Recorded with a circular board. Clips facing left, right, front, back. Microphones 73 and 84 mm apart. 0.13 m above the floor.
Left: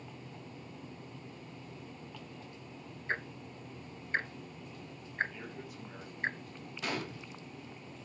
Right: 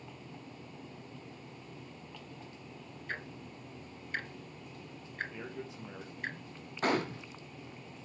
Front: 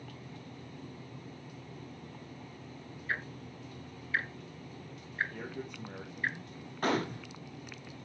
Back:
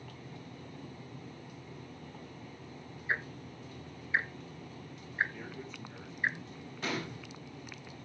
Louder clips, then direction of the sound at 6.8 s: Right 7 dB, front 7 dB; 45° right.